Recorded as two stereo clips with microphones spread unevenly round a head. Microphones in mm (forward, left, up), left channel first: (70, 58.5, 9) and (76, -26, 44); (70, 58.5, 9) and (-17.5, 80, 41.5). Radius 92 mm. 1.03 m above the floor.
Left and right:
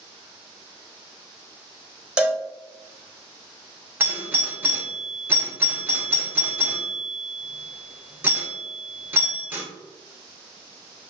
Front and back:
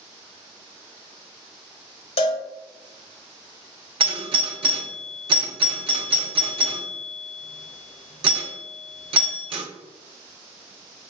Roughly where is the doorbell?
Behind.